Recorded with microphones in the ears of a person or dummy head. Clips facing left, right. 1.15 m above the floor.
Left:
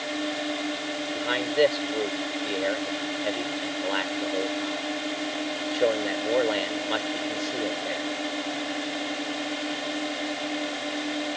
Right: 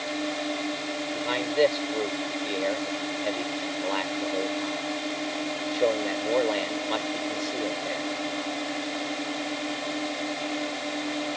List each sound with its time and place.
0.0 s a drone: 5° left (ahead or behind)
1.1 s a man speaking: 10° left (ahead or behind)